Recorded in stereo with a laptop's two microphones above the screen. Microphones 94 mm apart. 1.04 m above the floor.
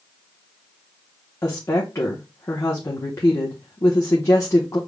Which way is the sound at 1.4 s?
35° left (ahead or behind).